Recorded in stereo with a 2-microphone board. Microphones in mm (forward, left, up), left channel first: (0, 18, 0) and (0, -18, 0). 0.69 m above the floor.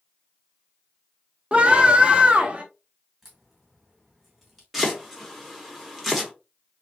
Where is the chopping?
Centre (ahead or behind), 1.2 m.